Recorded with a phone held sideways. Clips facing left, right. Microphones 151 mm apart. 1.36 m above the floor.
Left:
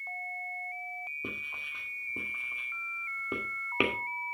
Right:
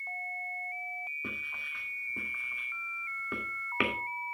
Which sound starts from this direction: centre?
Writing, at 1.2 s.